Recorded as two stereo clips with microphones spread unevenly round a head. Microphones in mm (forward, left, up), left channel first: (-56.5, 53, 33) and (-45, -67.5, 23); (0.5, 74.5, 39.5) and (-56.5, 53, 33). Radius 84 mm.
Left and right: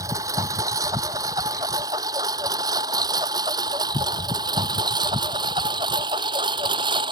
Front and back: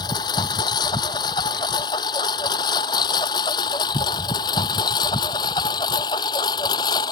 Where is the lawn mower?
10° right; by 7.1 s 20° right.